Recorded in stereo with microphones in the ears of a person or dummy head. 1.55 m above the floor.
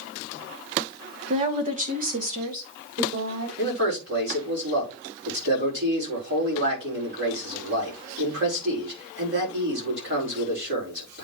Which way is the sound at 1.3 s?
40° right (ahead or behind).